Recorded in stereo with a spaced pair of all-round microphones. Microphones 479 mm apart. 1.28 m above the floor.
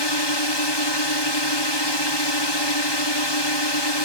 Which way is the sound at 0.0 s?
60° left (ahead or behind).